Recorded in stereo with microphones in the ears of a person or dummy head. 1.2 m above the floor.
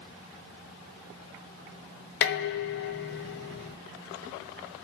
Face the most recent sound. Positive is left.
turn(degrees=60)  # may be behind; listen again after turning